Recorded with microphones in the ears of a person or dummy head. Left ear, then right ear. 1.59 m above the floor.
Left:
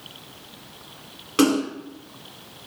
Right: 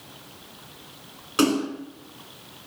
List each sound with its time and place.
1.4 s a splash: centre (ahead or behind), 1.2 m